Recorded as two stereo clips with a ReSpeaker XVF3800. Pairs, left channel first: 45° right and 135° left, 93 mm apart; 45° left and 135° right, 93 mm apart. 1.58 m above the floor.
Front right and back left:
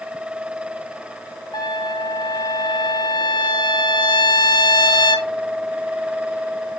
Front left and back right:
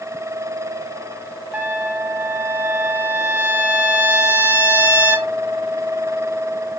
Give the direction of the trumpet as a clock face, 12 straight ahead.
2 o'clock.